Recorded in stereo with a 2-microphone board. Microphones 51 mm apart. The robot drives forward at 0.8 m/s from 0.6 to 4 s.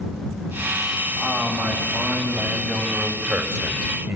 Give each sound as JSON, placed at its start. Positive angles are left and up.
{"t": 1.2, "sound": "a man speaking", "side_deg": -35, "distance_m": 3.5}